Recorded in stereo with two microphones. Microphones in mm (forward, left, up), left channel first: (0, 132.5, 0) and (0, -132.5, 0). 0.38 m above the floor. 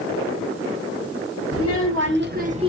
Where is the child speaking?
60° right (ahead or behind), 1.3 m; by 2.7 s 20° right (ahead or behind), 0.6 m.